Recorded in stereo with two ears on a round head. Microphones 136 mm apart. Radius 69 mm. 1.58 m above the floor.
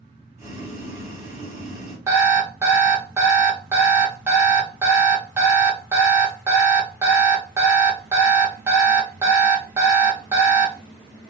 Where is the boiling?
20° right (ahead or behind), 2 m.